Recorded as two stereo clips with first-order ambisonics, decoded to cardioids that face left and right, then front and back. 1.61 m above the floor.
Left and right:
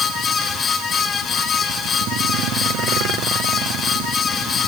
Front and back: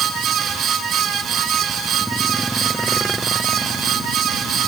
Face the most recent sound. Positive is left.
No sound to turn to.